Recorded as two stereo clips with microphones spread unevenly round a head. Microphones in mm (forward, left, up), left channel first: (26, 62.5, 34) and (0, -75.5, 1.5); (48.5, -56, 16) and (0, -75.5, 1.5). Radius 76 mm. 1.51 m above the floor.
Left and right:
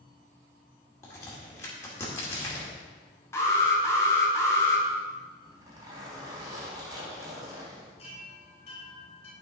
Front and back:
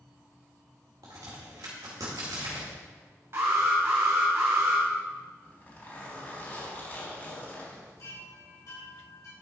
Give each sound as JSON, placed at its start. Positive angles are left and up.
{"t": 1.0, "sound": "a crack", "azimuth_deg": 145, "distance_m": 2.0}
{"t": 3.3, "sound": "an alarm", "azimuth_deg": 155, "distance_m": 1.6}
{"t": 5.4, "sound": "a zipper", "azimuth_deg": -30, "distance_m": 4.0}
{"t": 8.0, "sound": "a chime", "azimuth_deg": 40, "distance_m": 4.0}